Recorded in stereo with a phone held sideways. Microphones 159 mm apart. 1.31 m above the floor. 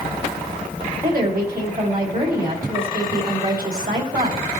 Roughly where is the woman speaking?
Right.